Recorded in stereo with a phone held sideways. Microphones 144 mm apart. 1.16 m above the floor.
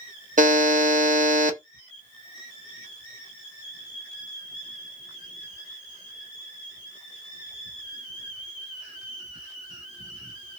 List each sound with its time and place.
0.4 s a buzzer: 60° right (ahead or behind), 0.6 m